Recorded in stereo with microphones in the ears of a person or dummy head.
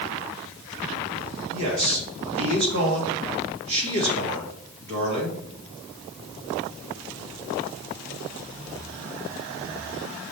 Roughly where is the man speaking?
Right.